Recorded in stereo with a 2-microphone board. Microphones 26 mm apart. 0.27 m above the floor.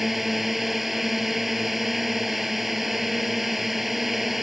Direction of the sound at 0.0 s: 5° right (ahead or behind).